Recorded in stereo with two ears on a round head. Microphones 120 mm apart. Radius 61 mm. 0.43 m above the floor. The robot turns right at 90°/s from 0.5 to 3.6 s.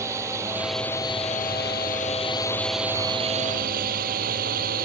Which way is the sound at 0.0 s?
20° right.